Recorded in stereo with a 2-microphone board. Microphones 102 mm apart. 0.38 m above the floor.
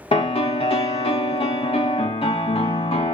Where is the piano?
60° left (ahead or behind), 0.7 m.